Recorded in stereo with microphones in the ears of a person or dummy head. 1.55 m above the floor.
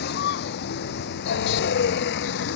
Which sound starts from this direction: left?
A vehicle, at 0.0 s.